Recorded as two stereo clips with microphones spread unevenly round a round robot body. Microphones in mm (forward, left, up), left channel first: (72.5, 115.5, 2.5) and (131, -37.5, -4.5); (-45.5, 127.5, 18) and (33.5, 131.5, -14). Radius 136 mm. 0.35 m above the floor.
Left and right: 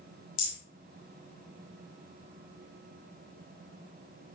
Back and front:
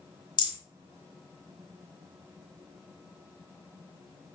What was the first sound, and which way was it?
A rattle, 150° left.